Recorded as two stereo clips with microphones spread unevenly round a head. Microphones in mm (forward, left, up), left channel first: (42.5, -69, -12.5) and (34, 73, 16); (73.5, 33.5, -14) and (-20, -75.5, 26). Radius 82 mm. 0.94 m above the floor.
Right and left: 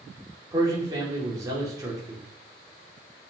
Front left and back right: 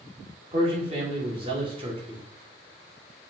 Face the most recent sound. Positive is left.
turn(degrees=170)